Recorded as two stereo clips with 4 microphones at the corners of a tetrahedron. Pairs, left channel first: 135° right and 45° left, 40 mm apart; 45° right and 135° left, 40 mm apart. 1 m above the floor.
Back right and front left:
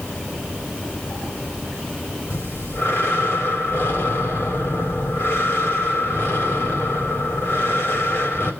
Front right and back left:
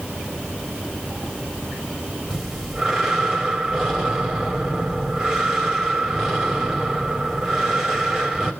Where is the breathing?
145° right, 4 m.